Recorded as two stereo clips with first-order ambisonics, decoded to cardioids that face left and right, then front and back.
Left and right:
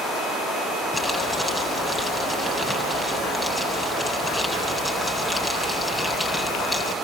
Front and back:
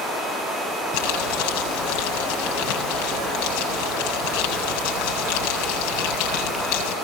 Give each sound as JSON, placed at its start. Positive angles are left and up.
{"t": 0.9, "sound": "crumpling", "azimuth_deg": 0, "distance_m": 9.0}